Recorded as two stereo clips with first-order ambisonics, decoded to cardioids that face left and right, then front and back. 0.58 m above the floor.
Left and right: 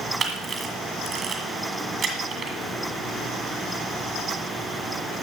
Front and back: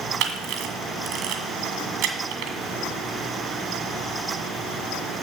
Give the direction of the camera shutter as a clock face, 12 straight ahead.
5 o'clock.